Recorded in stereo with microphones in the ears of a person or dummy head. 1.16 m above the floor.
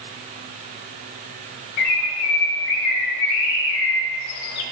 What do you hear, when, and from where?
1.8 s a bird: 50° left (ahead or behind), 0.8 m